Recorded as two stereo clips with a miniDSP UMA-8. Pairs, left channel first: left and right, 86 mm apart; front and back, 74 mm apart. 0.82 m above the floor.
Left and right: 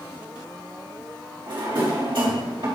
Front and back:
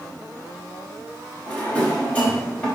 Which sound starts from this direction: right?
A drawer, at 1.5 s.